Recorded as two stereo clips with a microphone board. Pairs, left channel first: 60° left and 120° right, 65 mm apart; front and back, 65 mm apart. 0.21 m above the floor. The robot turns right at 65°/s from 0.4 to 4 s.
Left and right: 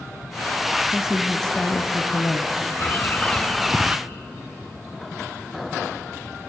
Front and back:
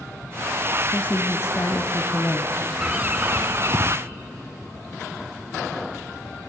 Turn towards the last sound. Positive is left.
turn(degrees=175)